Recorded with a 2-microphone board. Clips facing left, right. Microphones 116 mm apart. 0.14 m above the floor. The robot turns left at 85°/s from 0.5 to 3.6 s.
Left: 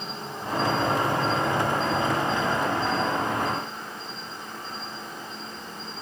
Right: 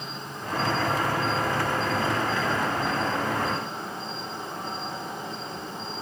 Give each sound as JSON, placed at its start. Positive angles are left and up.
{"t": 0.0, "sound": "an insect", "azimuth_deg": 150, "distance_m": 2.5}